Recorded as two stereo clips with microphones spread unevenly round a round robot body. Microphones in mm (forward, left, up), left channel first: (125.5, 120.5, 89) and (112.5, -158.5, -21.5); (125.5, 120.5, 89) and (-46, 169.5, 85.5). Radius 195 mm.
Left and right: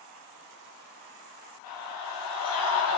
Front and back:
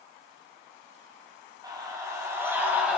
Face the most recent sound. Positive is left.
turn(degrees=80)